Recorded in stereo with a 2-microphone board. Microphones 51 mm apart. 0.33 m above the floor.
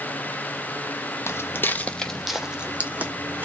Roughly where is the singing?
No singing in this recording.